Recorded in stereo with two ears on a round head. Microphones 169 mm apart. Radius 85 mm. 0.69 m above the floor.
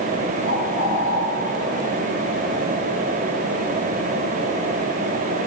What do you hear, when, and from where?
0.5 s a bird: 55° right (ahead or behind), 3.5 m